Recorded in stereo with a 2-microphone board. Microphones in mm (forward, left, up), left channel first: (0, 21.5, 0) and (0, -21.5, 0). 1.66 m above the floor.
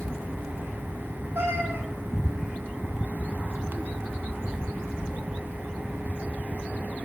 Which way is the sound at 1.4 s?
75° right (ahead or behind).